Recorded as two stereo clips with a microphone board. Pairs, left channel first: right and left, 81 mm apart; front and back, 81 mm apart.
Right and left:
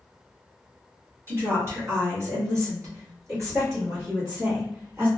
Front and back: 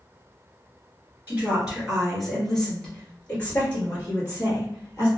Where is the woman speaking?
125° left, 1.6 m; by 5.1 s 45° left, 2.5 m.